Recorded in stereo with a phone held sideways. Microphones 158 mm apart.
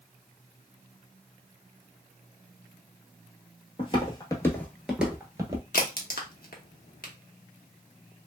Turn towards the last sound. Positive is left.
turn(degrees=65)  # may be behind; listen again after turning